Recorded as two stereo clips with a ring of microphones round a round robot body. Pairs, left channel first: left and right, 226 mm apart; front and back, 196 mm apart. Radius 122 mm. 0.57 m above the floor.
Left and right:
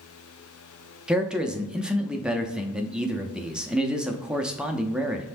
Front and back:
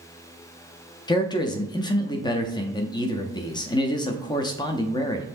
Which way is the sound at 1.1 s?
10° right.